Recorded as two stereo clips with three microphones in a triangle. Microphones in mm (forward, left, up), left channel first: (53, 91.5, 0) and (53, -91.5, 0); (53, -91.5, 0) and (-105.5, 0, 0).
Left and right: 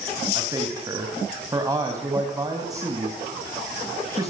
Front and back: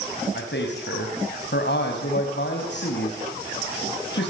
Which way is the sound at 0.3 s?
20° right.